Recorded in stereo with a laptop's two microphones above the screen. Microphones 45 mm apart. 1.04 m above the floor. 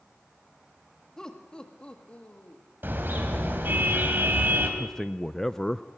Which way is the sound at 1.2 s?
15° left (ahead or behind).